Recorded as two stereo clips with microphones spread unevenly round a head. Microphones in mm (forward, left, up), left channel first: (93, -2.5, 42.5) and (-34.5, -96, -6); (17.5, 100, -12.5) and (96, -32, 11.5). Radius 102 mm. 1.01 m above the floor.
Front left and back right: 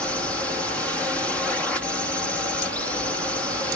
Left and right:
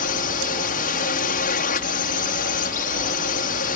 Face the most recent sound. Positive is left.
turn(degrees=130)